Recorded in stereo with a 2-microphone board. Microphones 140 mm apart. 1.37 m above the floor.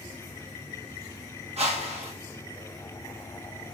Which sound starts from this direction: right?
A whoosh, at 1.6 s.